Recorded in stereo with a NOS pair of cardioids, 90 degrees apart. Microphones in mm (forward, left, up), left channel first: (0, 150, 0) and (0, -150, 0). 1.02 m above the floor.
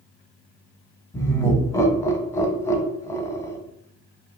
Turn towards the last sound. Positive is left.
turn(degrees=10)